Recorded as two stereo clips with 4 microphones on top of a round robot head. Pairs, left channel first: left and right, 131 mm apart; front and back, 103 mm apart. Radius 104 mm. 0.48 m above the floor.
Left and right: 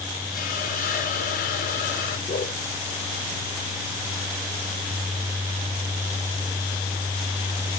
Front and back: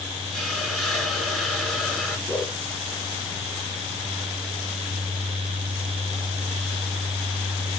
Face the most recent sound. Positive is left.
turn(degrees=80)